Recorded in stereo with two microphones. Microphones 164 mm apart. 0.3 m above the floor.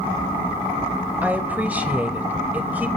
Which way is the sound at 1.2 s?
10° right (ahead or behind).